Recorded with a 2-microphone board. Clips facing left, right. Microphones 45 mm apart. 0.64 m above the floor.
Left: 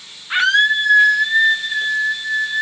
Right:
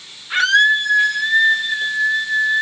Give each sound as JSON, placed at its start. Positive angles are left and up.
{"t": 0.3, "sound": "a scream", "side_deg": 20, "distance_m": 1.3}